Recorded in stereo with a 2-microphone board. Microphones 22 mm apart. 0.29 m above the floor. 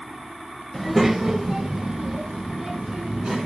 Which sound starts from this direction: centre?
A child speaking, at 0.7 s.